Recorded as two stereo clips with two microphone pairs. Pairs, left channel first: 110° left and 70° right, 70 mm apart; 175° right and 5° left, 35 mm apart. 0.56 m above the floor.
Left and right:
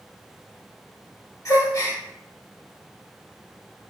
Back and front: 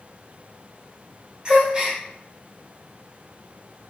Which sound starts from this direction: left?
A gasp, at 1.4 s.